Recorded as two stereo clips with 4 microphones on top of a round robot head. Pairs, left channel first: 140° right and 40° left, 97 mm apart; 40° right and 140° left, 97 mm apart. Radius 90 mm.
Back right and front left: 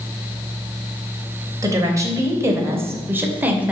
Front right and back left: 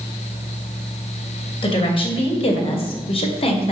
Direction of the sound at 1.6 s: 15° right.